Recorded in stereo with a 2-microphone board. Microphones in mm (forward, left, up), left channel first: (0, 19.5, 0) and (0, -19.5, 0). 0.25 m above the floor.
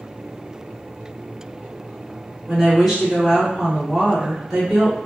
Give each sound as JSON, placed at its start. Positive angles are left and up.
{"t": 2.5, "sound": "a woman speaking", "side_deg": 0, "distance_m": 1.5}